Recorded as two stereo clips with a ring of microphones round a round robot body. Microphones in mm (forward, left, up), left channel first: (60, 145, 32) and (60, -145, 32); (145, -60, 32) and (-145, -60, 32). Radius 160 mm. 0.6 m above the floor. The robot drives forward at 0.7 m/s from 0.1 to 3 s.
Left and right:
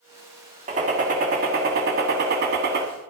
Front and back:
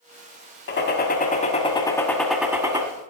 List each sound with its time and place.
0.7 s a gunshot: 35° right, 1.7 m; by 2.9 s 120° right, 1.4 m